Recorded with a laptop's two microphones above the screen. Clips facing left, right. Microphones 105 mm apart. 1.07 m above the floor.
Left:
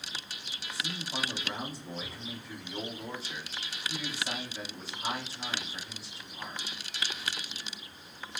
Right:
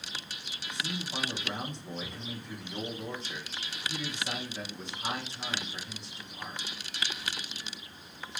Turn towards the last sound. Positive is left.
turn(degrees=5)  # may be behind; listen again after turning